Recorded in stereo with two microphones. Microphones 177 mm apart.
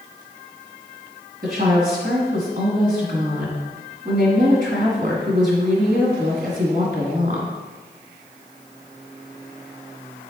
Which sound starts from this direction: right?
A woman speaking, at 1.4 s.